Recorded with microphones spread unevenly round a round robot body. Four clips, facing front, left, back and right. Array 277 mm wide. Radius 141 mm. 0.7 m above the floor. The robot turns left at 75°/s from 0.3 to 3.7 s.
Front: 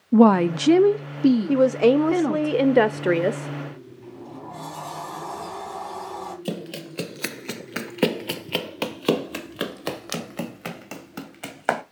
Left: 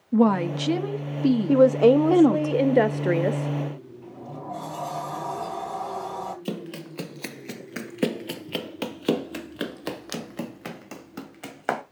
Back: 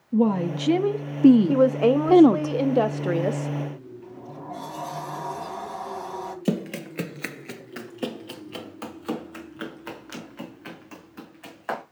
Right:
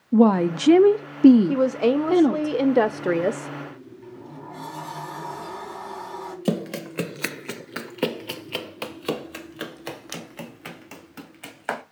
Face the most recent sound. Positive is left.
turn(degrees=25)